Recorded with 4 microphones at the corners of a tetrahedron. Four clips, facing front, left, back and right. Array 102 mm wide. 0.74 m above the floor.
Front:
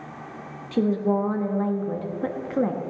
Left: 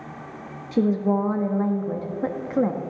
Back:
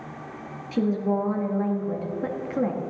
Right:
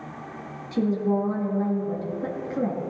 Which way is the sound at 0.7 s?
75° left.